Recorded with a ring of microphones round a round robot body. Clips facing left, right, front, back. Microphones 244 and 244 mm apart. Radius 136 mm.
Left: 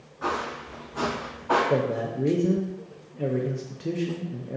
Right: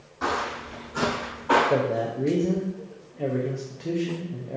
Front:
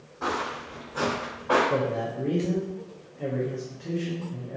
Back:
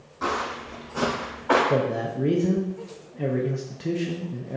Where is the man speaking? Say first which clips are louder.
Right 1 dB, back 3 dB; 165° left, 0.6 m.